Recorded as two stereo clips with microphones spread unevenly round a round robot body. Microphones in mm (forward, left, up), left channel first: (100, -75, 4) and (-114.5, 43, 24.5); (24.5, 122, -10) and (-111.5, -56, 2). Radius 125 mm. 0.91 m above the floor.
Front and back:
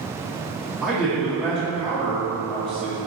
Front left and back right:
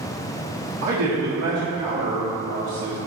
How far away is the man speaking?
About 0.9 m.